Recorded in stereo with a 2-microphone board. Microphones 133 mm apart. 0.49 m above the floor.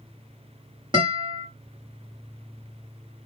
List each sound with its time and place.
0.9 s a guitar: 35° right (ahead or behind), 1.4 m